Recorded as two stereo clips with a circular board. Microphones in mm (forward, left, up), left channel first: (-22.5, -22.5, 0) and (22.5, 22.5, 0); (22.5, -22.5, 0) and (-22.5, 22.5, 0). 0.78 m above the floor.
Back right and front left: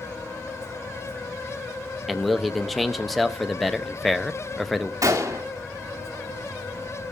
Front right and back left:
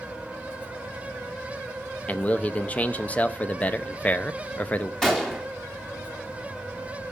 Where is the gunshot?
40° left, 1.8 m.